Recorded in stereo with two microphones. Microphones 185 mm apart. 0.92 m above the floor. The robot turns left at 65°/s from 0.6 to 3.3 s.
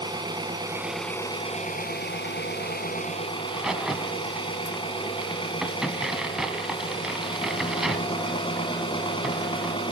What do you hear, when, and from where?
0.0 s an engine running: 155° right, 2.5 m; by 9.9 s 30° left, 2.5 m
3.4 s a crack: 5° right (ahead or behind), 1.3 m